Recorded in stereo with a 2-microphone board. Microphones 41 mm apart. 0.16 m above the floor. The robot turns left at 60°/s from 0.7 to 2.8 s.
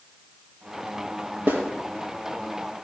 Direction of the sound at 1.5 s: 55° right (ahead or behind).